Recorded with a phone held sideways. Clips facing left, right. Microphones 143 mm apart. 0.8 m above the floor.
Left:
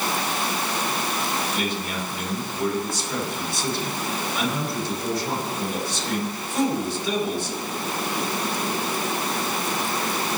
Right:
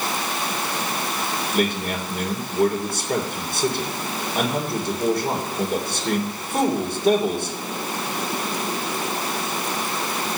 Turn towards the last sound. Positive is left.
turn(degrees=-60)  # may be behind; listen again after turning